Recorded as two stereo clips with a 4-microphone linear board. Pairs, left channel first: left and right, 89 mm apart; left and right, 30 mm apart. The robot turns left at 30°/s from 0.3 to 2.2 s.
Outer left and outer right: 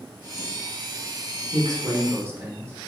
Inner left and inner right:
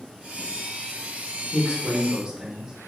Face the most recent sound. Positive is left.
turn(degrees=-30)  # may be behind; listen again after turning